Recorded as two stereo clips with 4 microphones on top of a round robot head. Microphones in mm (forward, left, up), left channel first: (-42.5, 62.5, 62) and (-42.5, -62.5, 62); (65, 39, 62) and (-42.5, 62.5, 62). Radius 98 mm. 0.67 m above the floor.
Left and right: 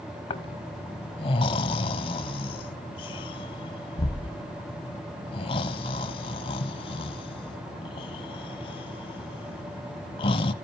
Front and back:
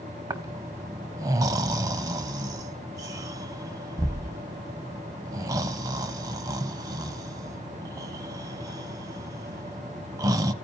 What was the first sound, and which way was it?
Snoring, 120° left.